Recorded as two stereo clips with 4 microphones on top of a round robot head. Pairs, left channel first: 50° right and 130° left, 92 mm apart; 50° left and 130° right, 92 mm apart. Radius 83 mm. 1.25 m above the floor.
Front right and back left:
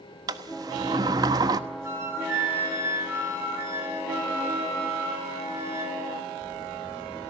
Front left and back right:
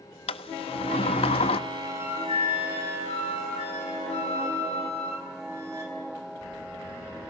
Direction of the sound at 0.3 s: 75° left.